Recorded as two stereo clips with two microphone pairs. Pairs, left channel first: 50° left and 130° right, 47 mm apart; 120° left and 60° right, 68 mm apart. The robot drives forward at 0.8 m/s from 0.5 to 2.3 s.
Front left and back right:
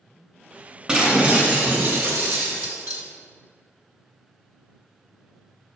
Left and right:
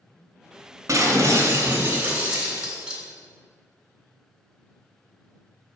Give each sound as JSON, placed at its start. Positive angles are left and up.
{"t": 0.9, "sound": "breaking glass", "azimuth_deg": -65, "distance_m": 1.4}